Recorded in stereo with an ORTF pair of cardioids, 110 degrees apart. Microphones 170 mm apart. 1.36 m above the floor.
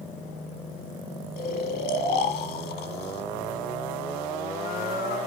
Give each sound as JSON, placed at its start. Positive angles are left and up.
{"t": 1.4, "sound": "snoring", "azimuth_deg": 65, "distance_m": 2.0}